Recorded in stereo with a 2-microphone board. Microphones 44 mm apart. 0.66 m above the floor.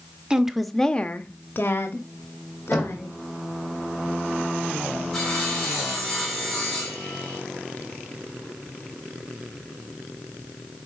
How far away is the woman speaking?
About 1.1 m.